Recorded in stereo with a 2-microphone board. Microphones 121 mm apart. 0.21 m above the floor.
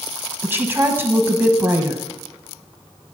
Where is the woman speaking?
20° right (ahead or behind), 1.0 m.